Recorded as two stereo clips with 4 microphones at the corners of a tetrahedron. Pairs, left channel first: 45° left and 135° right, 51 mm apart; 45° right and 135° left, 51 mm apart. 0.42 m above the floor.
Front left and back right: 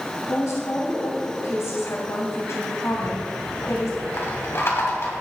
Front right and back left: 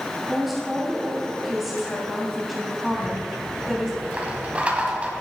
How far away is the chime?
No chime in this recording.